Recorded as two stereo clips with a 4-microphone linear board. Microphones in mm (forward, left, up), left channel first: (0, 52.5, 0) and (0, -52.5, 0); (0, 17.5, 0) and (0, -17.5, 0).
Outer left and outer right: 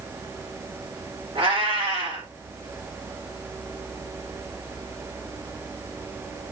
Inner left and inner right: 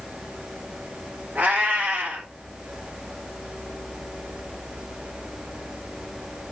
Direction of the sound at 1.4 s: 65° right (ahead or behind).